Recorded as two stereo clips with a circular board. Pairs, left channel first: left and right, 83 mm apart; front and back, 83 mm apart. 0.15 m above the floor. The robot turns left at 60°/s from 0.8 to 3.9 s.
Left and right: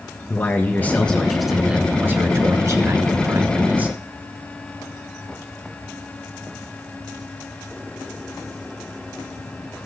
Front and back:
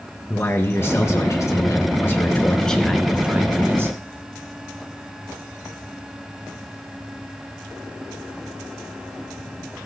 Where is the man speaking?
35° left, 1.6 m; by 4.0 s 150° right, 1.6 m.